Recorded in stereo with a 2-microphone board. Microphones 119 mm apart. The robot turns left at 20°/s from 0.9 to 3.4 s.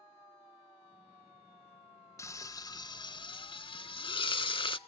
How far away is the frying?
About 0.5 m.